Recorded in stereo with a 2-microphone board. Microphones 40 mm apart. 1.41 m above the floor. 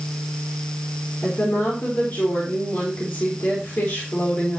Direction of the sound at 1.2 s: 65° left (ahead or behind).